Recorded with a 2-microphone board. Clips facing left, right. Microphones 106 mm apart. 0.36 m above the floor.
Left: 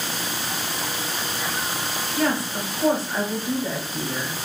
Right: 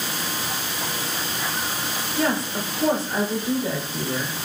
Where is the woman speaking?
20° right (ahead or behind), 0.9 m.